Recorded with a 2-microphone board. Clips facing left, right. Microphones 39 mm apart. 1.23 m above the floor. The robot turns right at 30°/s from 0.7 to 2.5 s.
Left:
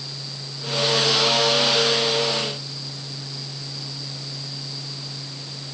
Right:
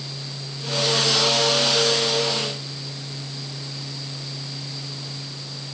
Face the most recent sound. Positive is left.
No sound to turn to.